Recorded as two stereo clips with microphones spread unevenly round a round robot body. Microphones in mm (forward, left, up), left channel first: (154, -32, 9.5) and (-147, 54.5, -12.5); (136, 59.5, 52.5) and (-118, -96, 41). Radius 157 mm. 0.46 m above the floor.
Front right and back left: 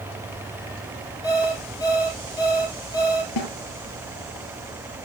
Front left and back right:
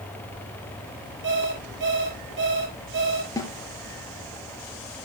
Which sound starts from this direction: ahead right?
A snare drum, at 3.4 s.